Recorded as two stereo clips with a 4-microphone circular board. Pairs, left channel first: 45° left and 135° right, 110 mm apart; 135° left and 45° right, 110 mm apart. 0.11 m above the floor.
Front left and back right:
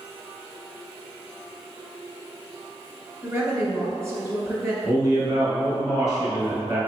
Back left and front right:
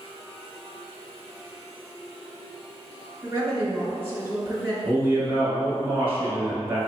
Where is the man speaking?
105° right, 1.6 m.